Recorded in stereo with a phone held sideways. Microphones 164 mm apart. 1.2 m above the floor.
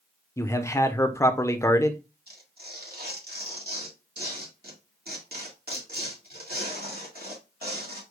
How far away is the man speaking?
About 0.8 m.